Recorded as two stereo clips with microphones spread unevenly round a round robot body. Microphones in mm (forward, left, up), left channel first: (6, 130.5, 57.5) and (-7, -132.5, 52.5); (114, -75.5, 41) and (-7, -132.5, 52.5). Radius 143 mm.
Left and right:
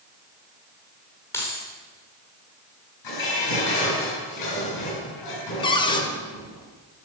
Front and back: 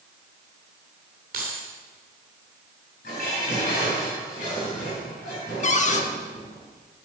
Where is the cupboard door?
15° left, 1.1 m.